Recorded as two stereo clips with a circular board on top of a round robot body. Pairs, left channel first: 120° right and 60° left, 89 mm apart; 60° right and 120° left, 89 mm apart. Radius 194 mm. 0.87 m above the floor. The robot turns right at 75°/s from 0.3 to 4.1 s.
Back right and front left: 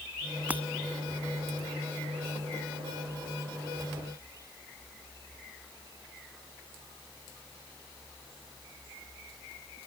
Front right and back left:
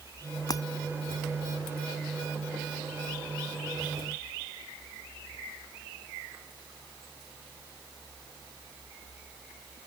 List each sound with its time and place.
0.5 s breaking glass: 15° right; by 0.6 s 5° right